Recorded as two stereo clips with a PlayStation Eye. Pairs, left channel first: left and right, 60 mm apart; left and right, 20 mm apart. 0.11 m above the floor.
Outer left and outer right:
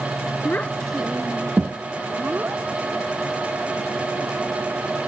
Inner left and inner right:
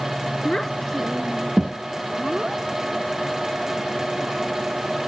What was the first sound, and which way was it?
A child speaking, 35° left (ahead or behind).